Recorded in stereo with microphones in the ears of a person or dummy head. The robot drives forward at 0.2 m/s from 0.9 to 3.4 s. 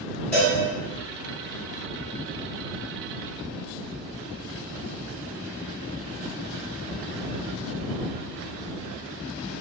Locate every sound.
0.3 s a cowbell: 5° left (ahead or behind), 1.1 m